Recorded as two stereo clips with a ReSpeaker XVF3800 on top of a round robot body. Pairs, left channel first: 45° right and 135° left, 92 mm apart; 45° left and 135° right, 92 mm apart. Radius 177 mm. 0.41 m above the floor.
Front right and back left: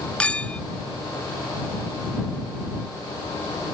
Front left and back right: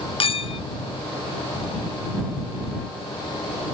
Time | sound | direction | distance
0.2 | a clink | 30° left | ?